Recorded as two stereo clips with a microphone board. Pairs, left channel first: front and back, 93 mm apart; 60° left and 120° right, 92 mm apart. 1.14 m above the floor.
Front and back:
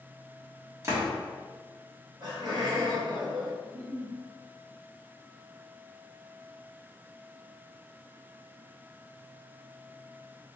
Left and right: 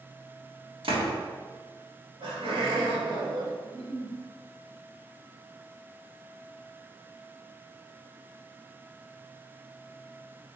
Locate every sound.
0.8 s a door slam: 120° right, 1.2 m
2.2 s laughter: 140° right, 1.7 m
3.6 s a giggle: 150° left, 1.1 m